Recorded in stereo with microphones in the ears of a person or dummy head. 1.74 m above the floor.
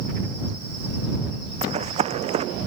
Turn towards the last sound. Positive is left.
turn(degrees=-30)  # may be behind; listen again after turning